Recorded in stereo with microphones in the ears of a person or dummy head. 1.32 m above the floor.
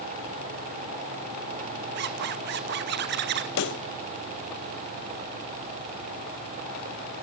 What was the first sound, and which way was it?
A zipper, 60° right (ahead or behind).